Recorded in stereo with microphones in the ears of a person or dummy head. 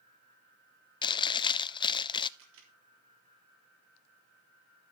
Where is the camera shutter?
75° right (ahead or behind), 3.5 m.